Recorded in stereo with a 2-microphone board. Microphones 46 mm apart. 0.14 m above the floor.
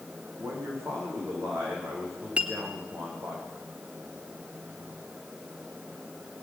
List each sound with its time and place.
0.4 s a man speaking: 70° right (ahead or behind), 9 m
2.4 s a clink: 25° right (ahead or behind), 1.4 m